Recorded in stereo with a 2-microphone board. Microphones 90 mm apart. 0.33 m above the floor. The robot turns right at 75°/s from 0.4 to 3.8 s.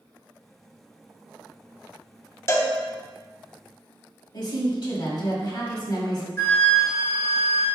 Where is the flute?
25° left (ahead or behind), 1.4 m.